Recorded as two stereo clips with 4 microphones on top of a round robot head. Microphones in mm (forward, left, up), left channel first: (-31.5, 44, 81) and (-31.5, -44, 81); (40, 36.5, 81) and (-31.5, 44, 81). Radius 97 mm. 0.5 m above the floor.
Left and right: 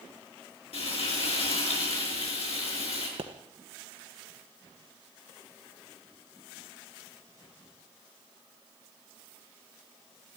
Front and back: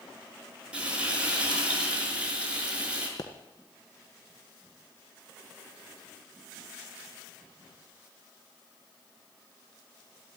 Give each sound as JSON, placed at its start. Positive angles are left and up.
{"t": 0.7, "sound": "frying", "azimuth_deg": 95, "distance_m": 6.0}
{"t": 3.2, "sound": "a pop", "azimuth_deg": -55, "distance_m": 1.4}